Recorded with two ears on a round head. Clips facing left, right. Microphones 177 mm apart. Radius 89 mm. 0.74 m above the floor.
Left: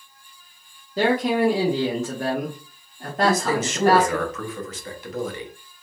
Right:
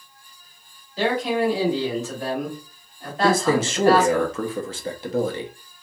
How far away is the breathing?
No breathing in this recording.